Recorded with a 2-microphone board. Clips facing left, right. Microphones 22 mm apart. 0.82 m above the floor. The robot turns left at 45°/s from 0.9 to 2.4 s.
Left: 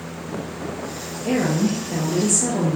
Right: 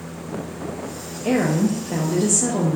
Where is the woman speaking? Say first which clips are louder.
Right 1 dB; 100° right, 0.6 m; by 2.8 s 155° right, 0.6 m.